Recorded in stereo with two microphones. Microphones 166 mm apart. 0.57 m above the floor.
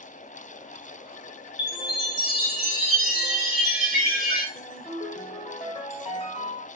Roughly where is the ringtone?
Left.